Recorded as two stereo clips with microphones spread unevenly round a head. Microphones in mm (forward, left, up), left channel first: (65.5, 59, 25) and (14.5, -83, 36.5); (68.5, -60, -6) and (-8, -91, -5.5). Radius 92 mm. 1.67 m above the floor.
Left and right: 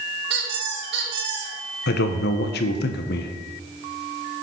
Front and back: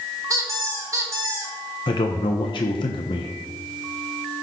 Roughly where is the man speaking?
Ahead left.